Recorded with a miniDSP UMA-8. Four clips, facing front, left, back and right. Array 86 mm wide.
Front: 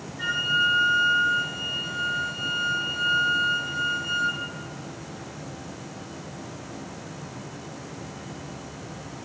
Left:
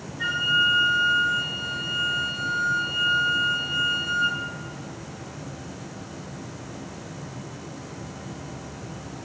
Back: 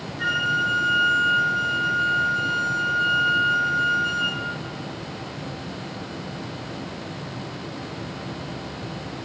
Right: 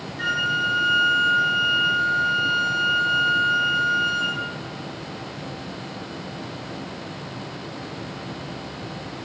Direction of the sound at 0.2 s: 85° right.